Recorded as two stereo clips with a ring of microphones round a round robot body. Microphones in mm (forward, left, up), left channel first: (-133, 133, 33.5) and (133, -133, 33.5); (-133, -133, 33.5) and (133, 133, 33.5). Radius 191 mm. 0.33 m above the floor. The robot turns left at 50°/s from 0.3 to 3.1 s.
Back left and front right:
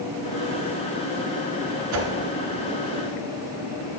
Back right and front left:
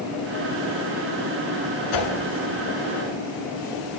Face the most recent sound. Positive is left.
turn(degrees=-150)